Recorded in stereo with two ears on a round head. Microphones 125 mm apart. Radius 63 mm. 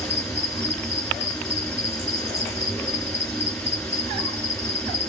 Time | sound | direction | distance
0.0 | an insect | 10° left (ahead or behind) | 4.5 m